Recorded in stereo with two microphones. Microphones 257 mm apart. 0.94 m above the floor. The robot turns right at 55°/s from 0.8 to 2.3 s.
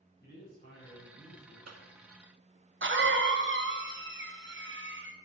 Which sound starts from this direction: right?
A cough, at 1.7 s.